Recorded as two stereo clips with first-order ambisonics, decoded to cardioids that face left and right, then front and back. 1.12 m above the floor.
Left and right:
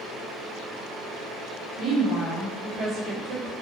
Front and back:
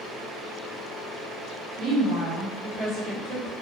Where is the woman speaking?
140° right, 1.3 m.